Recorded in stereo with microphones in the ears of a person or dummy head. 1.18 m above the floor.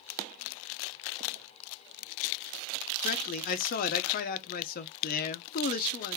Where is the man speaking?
45° left (ahead or behind), 0.6 m.